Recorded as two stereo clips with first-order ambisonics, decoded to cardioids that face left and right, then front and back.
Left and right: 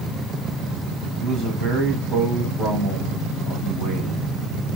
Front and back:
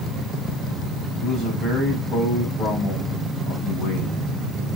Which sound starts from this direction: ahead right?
A man speaking, at 1.2 s.